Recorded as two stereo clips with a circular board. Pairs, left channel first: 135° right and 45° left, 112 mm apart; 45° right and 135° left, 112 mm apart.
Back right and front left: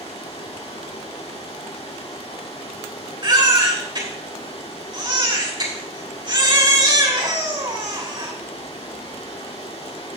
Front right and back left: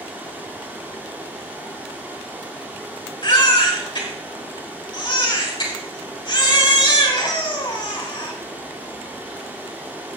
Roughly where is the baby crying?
Ahead.